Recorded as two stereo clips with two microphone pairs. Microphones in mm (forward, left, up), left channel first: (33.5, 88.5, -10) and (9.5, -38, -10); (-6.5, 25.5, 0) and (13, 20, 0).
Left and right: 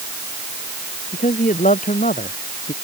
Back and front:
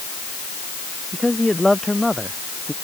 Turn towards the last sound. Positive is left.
turn(degrees=90)